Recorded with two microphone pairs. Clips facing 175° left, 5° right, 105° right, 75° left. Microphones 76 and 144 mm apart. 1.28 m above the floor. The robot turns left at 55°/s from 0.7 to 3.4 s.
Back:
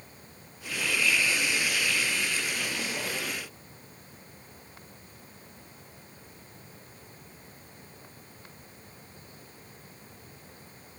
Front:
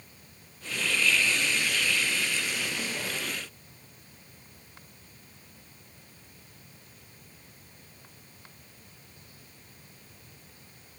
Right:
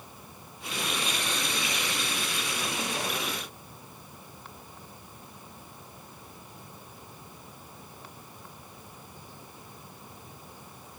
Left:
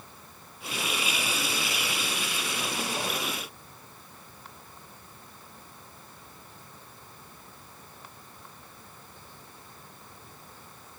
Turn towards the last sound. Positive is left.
No sound to turn to.